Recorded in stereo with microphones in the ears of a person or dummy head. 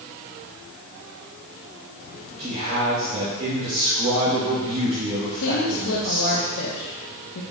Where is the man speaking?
35° right (ahead or behind), 2 m.